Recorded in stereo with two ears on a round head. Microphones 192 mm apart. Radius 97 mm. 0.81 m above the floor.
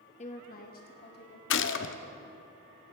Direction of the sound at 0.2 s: 35° left (ahead or behind).